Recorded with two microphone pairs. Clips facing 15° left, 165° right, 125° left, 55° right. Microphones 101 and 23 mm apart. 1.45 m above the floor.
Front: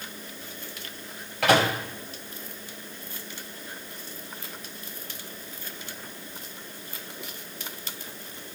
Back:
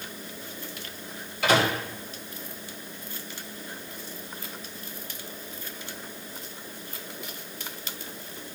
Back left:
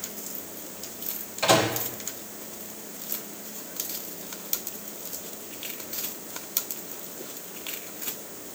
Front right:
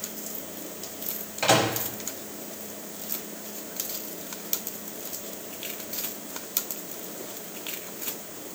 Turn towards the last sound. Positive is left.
turn(degrees=20)